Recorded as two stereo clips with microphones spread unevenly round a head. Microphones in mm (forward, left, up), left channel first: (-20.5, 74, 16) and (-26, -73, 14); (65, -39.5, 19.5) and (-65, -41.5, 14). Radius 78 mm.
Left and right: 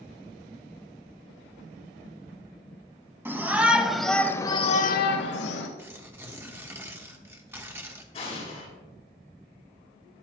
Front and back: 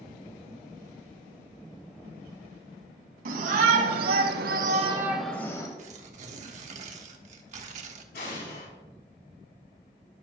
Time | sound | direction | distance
3.2 | a shout | 170° right | 2 m
5.8 | tearing paper | 165° right | 1.4 m
8.1 | an explosion | 35° left | 4 m